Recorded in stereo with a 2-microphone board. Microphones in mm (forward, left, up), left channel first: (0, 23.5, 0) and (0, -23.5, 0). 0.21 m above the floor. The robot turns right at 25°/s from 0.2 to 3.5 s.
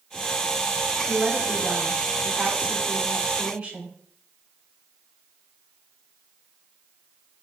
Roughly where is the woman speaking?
Centre.